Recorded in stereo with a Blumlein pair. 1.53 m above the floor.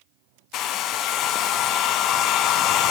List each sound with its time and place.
0.5 s a hair dryer: 35° left, 0.5 m